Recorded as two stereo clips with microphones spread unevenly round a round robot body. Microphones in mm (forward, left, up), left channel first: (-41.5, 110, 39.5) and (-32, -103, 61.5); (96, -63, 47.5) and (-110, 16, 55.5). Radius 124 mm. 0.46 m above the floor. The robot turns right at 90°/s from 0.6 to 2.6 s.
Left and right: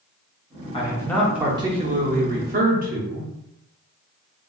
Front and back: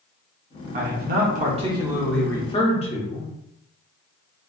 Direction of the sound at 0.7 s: 130° left.